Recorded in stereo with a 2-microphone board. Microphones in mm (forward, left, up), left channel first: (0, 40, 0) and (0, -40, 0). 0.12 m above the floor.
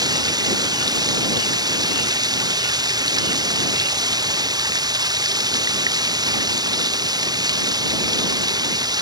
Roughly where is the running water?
Right.